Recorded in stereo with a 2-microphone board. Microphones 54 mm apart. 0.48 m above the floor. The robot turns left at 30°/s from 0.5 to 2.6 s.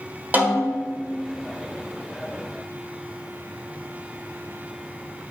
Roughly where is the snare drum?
Right.